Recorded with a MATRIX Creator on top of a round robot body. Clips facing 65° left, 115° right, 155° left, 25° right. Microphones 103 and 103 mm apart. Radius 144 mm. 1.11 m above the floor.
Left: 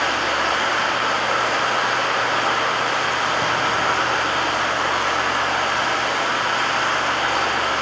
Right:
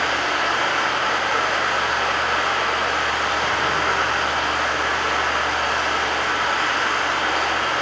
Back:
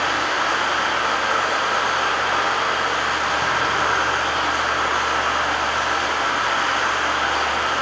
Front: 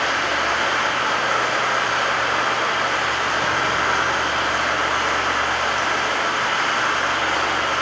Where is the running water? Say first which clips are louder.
Left 1 dB, even; 85° left, 6 m.